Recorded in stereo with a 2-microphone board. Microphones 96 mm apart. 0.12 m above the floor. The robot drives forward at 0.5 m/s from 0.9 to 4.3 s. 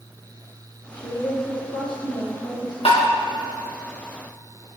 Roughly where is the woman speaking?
Left.